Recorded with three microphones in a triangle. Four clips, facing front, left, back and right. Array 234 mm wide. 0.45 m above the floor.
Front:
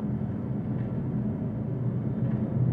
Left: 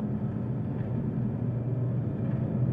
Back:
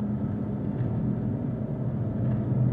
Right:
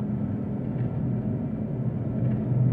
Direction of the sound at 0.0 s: 130° right.